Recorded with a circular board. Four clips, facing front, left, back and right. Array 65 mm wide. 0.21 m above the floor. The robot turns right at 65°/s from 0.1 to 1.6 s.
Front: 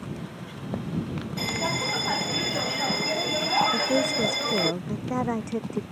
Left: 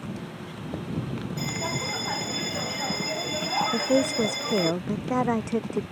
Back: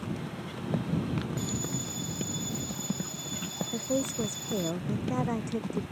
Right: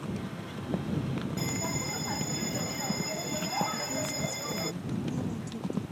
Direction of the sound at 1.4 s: 5° left.